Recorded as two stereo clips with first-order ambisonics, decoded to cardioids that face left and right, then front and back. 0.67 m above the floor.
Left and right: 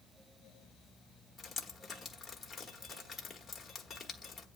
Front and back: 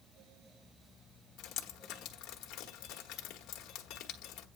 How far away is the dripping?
About 1.3 m.